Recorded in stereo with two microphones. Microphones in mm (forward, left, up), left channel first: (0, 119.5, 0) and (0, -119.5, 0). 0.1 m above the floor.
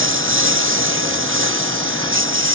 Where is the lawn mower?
55° right (ahead or behind).